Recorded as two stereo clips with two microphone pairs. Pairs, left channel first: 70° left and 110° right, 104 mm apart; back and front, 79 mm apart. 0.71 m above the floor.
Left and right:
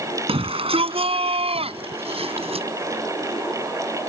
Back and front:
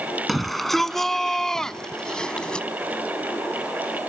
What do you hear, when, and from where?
0.3 s a shout: 90° right; by 2.7 s 100° right